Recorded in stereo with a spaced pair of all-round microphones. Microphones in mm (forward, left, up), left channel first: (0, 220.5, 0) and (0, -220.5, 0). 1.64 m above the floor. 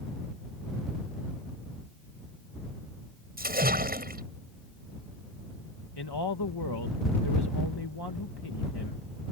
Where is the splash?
20° right (ahead or behind).